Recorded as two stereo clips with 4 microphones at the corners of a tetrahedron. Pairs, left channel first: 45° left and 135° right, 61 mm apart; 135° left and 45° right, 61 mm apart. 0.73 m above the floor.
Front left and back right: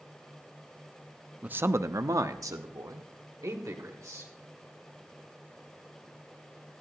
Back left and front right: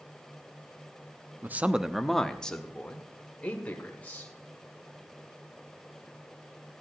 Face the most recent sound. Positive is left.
turn(degrees=-160)